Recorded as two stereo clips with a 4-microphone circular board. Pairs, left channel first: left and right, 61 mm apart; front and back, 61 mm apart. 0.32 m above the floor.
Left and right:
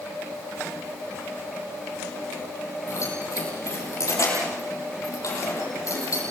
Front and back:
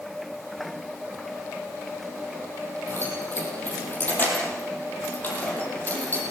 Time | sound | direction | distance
2.9 | keys jangling | 55° left | 10 m